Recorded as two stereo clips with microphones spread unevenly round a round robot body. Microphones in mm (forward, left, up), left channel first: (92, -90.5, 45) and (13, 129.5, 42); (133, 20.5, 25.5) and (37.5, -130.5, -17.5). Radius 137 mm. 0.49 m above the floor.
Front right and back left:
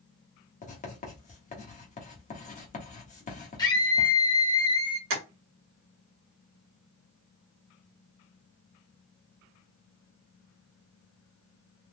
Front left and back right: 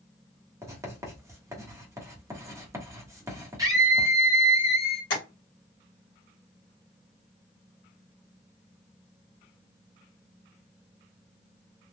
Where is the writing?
95° right, 1.4 m.